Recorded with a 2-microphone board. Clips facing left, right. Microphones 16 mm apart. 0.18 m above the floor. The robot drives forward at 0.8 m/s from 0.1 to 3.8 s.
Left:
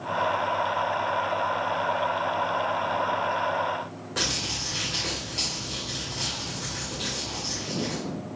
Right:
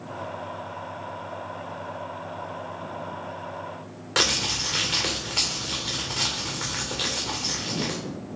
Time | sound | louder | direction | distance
4.2 | crumpling | right 5 dB | 55° right (ahead or behind) | 4 m